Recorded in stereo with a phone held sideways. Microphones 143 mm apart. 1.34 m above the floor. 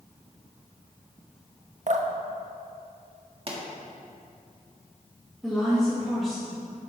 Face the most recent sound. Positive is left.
turn(degrees=0)  # may be behind; listen again after turning